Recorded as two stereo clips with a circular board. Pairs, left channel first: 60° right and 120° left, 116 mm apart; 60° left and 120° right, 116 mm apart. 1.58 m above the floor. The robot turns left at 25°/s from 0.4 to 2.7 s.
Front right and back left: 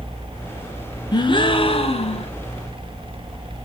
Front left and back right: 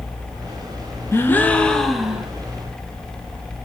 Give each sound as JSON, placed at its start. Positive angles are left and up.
{"t": 1.1, "sound": "a gasp", "azimuth_deg": -10, "distance_m": 0.5}